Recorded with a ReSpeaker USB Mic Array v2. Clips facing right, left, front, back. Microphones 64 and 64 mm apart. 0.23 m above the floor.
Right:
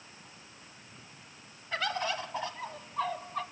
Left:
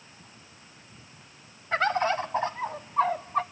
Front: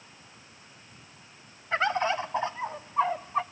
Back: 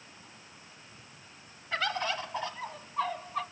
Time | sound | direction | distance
1.7 | a bird | 55° left | 0.6 m